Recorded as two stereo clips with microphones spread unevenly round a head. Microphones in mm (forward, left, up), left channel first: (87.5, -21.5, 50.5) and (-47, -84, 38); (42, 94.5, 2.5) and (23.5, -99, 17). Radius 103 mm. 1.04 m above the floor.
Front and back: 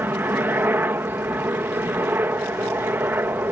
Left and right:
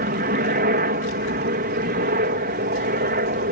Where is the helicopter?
85° right.